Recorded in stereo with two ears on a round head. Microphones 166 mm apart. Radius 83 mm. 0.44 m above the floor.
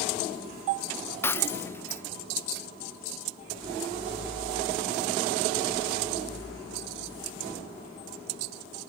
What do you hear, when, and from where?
1.2 s breaking glass: 10° left (ahead or behind)